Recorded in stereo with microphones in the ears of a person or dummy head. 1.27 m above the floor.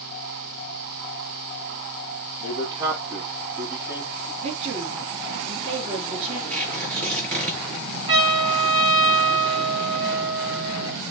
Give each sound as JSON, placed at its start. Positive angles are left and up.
{"t": 2.4, "sound": "a man speaking", "side_deg": -30, "distance_m": 1.6}
{"t": 4.4, "sound": "a woman speaking", "side_deg": -30, "distance_m": 3.0}
{"t": 6.5, "sound": "tearing paper", "side_deg": 5, "distance_m": 7.0}
{"t": 8.1, "sound": "a trumpet", "side_deg": -20, "distance_m": 4.5}